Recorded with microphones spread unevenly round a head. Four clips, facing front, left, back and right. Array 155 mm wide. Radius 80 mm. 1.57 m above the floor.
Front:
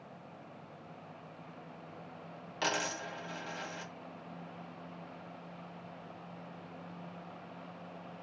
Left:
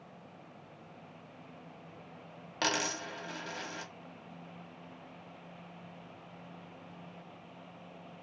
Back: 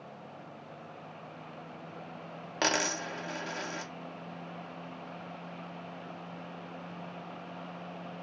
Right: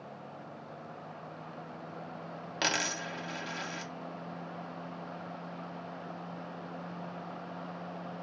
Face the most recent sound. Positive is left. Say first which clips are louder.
# even, back 4 dB
turn(degrees=-170)